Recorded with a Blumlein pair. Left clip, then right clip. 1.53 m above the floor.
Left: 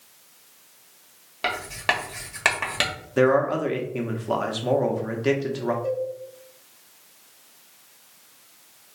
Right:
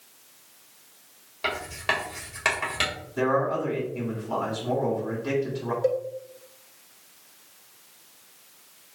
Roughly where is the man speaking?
Ahead left.